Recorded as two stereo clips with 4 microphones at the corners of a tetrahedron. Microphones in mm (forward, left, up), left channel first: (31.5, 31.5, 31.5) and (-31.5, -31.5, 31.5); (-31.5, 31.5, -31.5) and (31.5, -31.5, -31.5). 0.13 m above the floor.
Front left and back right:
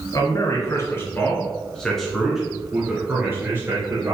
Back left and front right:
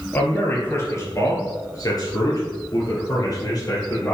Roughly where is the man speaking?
Left.